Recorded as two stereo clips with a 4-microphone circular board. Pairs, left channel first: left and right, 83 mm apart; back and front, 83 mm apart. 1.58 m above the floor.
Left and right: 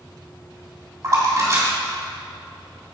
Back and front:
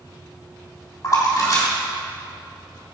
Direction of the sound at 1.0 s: 135° right.